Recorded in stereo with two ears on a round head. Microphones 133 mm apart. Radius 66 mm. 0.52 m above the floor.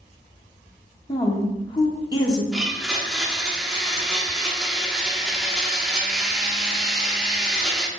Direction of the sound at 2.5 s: Centre (ahead or behind).